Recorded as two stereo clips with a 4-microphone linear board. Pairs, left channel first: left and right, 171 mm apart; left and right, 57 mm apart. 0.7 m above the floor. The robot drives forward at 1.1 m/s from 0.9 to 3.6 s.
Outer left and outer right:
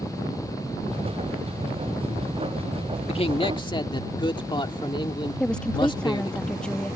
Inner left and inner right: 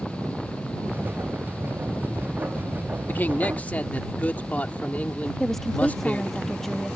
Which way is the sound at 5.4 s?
5° left (ahead or behind).